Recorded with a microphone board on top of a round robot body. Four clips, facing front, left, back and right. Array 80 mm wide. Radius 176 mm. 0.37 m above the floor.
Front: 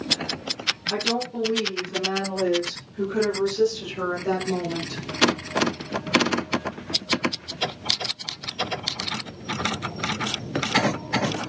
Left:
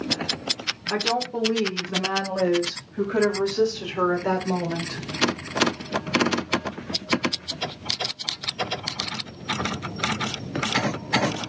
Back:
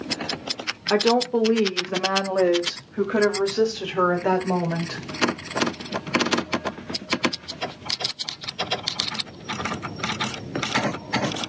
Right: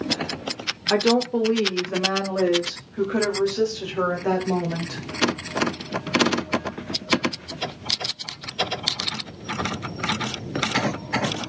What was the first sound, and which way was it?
A woman speaking, 150° right.